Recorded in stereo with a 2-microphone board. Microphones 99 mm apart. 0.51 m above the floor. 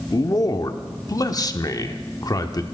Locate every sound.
0.1 s a man speaking: 40° left (ahead or behind), 0.8 m